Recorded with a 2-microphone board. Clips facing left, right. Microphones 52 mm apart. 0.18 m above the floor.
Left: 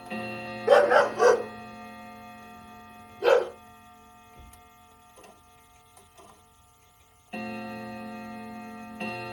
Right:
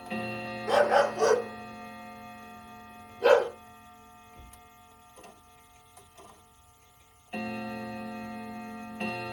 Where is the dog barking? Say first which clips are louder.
Left 4 dB; 65° left (ahead or behind), 0.9 m; by 3.5 s 15° right (ahead or behind), 1.4 m.